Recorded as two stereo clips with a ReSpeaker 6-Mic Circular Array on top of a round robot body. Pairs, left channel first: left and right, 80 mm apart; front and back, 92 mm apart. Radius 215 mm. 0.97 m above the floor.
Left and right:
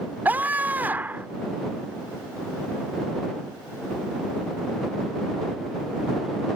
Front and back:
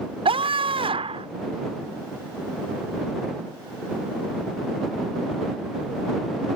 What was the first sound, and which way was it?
A scream, 160° right.